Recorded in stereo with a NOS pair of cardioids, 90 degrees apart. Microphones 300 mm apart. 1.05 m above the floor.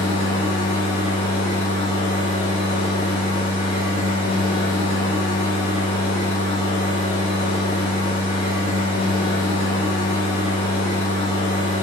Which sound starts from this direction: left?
A machine running, at 0.0 s.